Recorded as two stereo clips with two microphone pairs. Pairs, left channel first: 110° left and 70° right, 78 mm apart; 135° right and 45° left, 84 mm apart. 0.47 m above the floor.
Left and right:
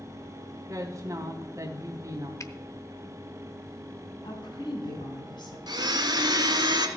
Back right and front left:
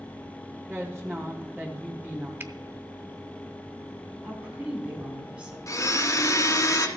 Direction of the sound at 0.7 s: 25° right.